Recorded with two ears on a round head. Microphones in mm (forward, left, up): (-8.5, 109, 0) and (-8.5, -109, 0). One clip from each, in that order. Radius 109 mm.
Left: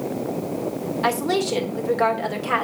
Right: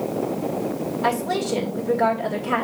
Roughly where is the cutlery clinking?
No cutlery clinking in this recording.